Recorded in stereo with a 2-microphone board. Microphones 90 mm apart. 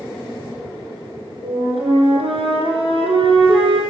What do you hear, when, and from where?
1.4 s a flute: 75° right (ahead or behind), 4.5 m